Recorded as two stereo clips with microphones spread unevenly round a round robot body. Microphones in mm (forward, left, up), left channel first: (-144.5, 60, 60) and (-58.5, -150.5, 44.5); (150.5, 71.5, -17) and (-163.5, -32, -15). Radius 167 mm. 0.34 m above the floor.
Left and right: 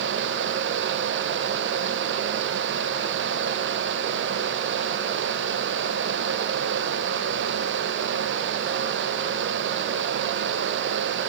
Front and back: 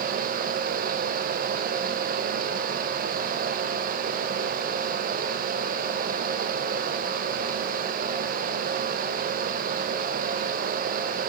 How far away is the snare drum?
I don't hear a snare drum.